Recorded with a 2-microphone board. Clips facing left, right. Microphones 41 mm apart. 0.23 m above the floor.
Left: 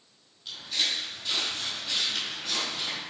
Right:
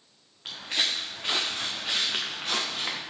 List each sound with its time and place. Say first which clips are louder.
0.5 s footsteps: right 2 dB; 60° right (ahead or behind), 1.6 m; by 3.0 s 45° right (ahead or behind), 2.5 m